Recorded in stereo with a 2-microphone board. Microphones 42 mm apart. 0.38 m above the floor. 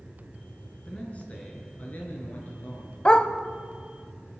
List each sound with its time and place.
0.8 s a man speaking: 30° left (ahead or behind), 4.5 m; by 3.0 s 50° left (ahead or behind), 6 m
3.0 s a dog barking: 20° left (ahead or behind), 0.9 m